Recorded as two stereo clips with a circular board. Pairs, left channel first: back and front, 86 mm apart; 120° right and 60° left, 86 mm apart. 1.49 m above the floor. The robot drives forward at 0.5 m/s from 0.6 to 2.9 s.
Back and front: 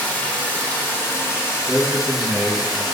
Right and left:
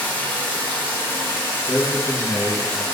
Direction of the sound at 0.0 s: 145° right.